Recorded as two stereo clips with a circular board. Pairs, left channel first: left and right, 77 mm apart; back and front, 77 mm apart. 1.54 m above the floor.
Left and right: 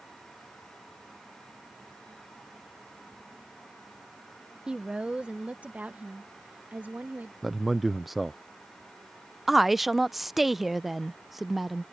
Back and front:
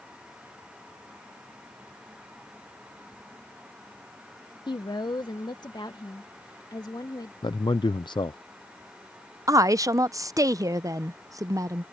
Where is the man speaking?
Straight behind.